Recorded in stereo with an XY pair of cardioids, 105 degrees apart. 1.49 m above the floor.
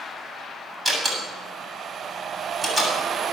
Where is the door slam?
20° right, 8 m.